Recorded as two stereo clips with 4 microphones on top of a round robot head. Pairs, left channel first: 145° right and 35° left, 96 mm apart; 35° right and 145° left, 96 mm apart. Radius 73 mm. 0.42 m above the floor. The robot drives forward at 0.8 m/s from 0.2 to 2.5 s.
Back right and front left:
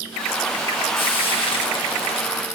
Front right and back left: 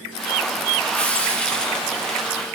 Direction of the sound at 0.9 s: 110° right.